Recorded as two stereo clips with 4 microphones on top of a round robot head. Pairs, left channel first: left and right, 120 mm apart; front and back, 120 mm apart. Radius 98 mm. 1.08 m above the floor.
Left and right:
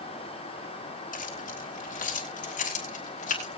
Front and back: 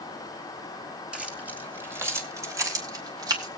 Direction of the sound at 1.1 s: 100° left.